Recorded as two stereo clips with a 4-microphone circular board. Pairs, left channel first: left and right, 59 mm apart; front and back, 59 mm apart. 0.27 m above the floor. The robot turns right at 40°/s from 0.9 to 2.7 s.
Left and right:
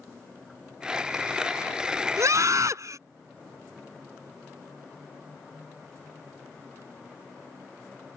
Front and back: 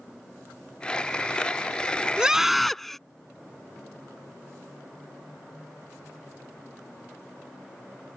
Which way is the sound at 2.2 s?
105° right.